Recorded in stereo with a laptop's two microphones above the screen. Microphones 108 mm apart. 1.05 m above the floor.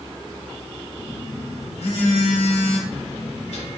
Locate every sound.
1.0 s a phone buzzing: 75° left (ahead or behind), 2 m